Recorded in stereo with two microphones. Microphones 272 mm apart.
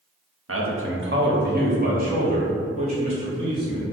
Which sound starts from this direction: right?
A man speaking, at 0.5 s.